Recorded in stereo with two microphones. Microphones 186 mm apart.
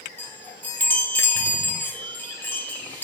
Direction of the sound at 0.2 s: 10° left (ahead or behind).